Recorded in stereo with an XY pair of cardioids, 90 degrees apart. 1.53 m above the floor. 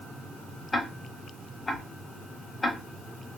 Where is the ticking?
35° left, 0.6 m.